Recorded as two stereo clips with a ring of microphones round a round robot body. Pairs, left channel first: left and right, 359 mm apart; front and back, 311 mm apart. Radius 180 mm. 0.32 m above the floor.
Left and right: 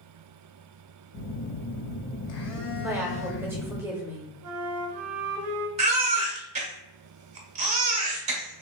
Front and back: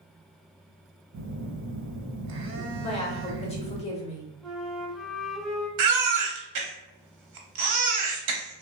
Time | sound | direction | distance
1.1 | a phone buzzing | 140° left | 0.7 m
2.8 | a woman speaking | 20° right | 0.9 m
4.4 | a flute | 90° right | 0.7 m
5.8 | a baby crying | 160° right | 0.8 m